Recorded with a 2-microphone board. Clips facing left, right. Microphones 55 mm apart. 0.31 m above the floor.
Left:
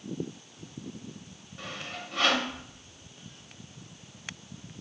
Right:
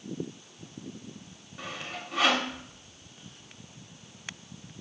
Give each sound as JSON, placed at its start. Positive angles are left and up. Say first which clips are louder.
{"t": 1.6, "sound": "sawing", "louder": "right 1 dB", "side_deg": -5, "distance_m": 0.6}